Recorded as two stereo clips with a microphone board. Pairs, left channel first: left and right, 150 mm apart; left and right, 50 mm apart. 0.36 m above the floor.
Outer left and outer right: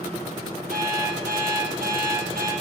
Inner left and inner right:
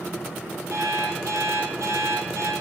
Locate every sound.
0.7 s an alarm clock: 85° right, 4 m